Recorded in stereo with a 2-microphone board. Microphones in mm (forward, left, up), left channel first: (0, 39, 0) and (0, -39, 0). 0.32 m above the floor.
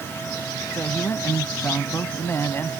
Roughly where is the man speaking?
Left.